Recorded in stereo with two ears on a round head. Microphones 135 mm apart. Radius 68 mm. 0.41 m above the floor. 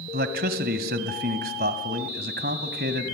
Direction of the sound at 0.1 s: 70° right (ahead or behind).